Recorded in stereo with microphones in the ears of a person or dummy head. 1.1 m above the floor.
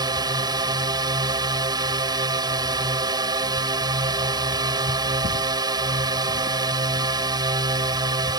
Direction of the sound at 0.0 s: 20° right (ahead or behind).